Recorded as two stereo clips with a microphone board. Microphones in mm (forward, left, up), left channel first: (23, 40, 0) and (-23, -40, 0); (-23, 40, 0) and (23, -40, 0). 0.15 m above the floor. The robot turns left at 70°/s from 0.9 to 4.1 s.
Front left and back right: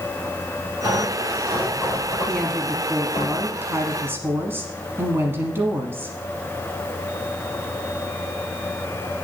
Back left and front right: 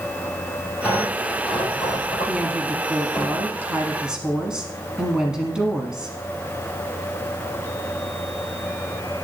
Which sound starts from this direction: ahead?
A woman speaking, at 2.3 s.